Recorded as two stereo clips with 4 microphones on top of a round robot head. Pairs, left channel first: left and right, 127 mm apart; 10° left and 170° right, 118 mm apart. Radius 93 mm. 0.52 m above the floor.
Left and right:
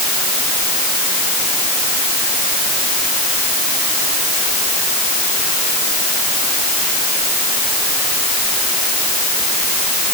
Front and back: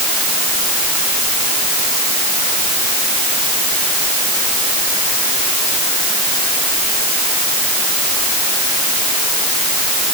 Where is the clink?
I don't hear a clink.